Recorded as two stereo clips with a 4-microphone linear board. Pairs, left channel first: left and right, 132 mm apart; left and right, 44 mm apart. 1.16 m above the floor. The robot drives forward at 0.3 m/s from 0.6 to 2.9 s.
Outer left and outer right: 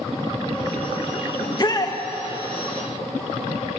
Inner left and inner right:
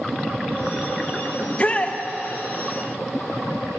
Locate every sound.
1.4 s a shout: 35° left (ahead or behind), 1.0 m; by 2.0 s 30° left (ahead or behind), 1.1 m